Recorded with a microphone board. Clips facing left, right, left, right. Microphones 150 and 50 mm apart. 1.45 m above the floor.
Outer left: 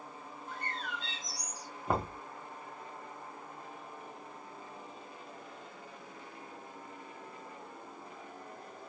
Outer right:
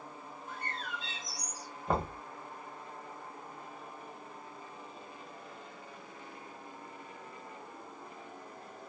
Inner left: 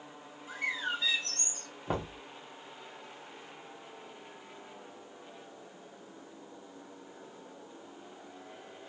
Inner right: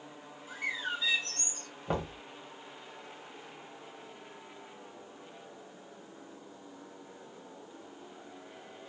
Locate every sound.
0.5 s a bird: 45° left (ahead or behind), 2 m
1.9 s knocking: 5° left (ahead or behind), 0.9 m